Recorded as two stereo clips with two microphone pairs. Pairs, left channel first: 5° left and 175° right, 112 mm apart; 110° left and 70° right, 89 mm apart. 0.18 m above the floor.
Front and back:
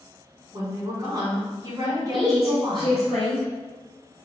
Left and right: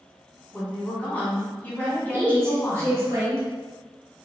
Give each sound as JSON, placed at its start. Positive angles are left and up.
{"t": 0.5, "sound": "a woman speaking", "azimuth_deg": 170, "distance_m": 1.6}
{"t": 2.1, "sound": "a woman speaking", "azimuth_deg": -80, "distance_m": 1.3}